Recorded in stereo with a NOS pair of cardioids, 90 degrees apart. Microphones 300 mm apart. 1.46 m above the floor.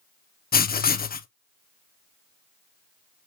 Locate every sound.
0.5 s writing: 30° left, 1.1 m